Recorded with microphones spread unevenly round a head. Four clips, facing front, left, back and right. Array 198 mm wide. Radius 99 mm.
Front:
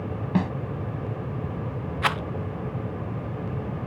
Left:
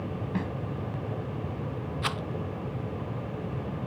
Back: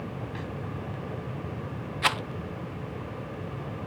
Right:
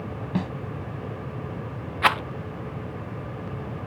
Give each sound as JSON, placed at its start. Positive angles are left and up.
{"t": 0.3, "sound": "a snare drum", "azimuth_deg": -10}
{"t": 2.0, "sound": "a rattle", "azimuth_deg": -95}